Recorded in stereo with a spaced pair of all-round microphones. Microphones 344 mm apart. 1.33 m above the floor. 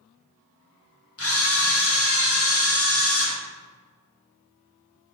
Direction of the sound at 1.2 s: 40° left (ahead or behind).